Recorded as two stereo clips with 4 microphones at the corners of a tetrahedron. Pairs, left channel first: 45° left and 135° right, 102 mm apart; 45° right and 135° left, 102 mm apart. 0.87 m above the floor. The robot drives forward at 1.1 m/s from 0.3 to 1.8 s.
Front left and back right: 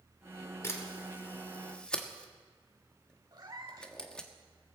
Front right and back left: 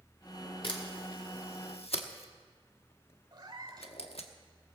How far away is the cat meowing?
About 1.5 m.